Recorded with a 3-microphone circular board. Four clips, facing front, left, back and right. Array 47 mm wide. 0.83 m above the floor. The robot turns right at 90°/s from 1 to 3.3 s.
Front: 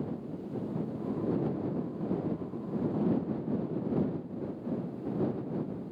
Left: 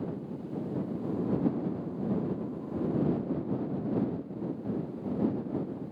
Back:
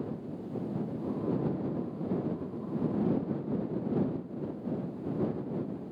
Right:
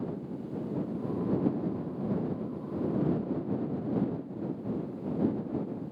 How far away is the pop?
No pop in this recording.